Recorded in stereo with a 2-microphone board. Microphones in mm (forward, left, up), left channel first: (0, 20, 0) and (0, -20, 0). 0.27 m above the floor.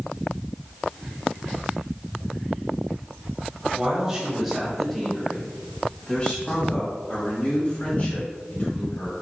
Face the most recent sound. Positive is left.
turn(degrees=55)  # may be behind; listen again after turning